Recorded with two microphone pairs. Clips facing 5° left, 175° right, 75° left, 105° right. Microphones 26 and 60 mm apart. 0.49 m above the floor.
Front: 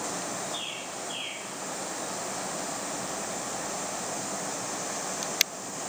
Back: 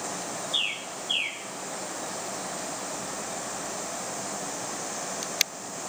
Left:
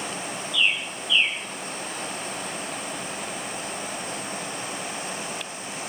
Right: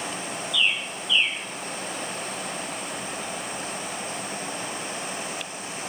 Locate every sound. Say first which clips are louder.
0.5 s a bird: back 6 dB, left 1 dB; 145° left, 2 m